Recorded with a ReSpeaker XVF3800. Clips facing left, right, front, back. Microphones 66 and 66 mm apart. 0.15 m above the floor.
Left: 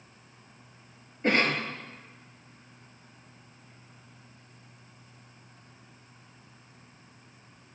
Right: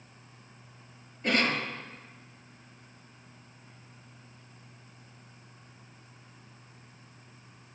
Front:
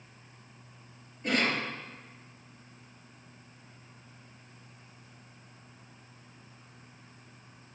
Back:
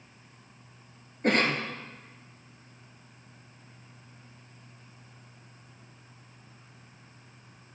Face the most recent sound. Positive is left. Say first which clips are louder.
# left 2 dB, back 4 dB
turn(degrees=145)